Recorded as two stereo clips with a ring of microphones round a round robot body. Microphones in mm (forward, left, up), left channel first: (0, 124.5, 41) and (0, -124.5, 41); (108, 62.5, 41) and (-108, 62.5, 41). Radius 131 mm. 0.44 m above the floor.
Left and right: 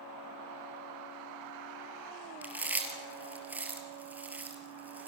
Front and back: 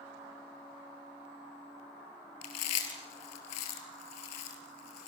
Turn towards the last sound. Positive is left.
turn(degrees=-5)